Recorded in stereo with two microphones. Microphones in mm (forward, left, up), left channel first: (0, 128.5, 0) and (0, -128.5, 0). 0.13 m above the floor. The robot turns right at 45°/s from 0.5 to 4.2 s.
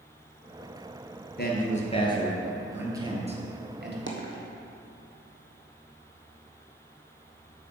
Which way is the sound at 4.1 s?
55° right (ahead or behind).